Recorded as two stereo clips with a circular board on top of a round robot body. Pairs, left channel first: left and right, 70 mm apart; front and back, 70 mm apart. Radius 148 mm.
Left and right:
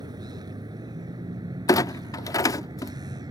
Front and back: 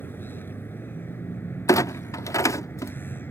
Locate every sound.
0.0 s a vehicle: 60° right
1.7 s a clunk: 50° left